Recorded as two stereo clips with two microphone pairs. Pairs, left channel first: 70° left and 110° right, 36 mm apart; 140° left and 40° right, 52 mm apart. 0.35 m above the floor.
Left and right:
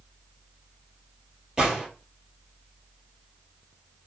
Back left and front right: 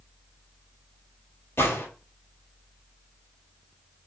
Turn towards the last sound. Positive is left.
turn(degrees=175)